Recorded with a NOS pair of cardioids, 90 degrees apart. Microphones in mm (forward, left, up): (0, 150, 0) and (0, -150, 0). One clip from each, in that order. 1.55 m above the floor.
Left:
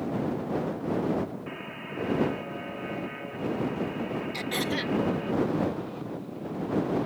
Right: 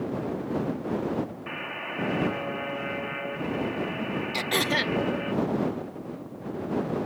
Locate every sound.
1.5 s a buzzer: 50° right
4.3 s throat clearing: 40° right